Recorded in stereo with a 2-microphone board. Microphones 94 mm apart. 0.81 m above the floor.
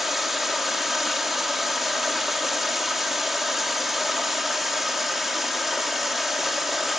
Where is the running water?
Centre (ahead or behind), 1.3 m.